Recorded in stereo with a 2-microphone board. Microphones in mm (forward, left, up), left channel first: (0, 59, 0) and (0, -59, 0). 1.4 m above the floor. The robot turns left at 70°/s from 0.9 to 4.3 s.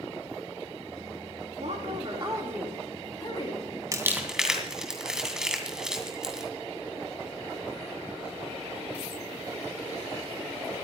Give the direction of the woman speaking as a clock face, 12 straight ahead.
3 o'clock.